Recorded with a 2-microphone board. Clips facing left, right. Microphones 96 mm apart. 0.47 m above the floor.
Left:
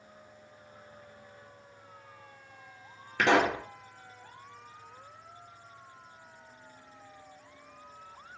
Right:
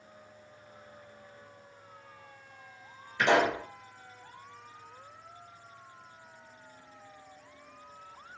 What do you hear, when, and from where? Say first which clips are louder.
3.2 s a pop: even; 80° left, 2.5 m